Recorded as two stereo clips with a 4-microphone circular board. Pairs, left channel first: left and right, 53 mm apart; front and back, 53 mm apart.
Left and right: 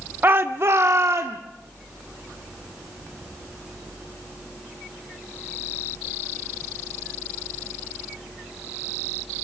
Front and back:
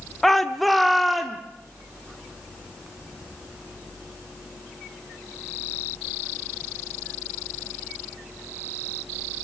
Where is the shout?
80° right, 0.7 m; by 1.4 s 90° right, 1.3 m.